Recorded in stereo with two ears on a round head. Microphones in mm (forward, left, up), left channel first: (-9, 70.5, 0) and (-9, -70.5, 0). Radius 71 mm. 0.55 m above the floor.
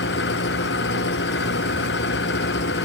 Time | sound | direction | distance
0.0 | an engine running | 85° left | ?